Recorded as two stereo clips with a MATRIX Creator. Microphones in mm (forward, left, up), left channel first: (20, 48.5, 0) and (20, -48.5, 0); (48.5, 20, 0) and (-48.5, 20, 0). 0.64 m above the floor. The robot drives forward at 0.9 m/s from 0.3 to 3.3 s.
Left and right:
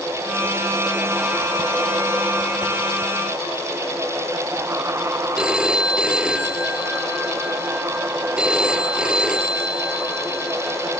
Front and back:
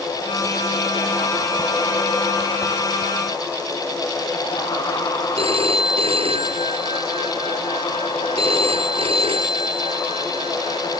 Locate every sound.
5.4 s a phone ringing: 170° right